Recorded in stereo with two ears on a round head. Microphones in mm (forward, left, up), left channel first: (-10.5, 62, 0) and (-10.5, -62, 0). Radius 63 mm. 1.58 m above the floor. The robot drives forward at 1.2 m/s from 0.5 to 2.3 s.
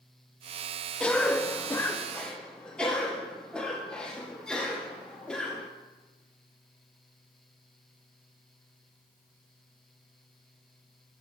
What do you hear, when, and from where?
1.0 s a cough: 5° left (ahead or behind), 0.8 m